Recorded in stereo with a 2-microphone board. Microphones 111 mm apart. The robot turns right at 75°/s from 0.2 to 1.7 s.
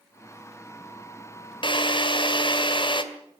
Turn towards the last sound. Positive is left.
turn(degrees=50)  # may be behind; listen again after turning